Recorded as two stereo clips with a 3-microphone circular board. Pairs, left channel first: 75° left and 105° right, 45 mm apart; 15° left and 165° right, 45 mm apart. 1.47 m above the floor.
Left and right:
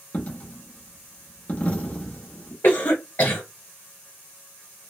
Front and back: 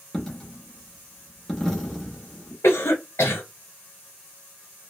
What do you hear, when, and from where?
0.1 s a dropped coin: 95° left, 0.9 m
2.6 s a cough: 40° left, 1.0 m